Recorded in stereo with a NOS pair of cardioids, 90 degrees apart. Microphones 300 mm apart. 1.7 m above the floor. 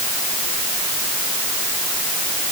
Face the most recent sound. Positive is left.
No sound to turn to.